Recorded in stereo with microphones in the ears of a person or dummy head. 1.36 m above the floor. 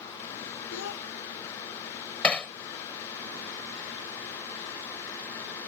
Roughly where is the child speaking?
Left.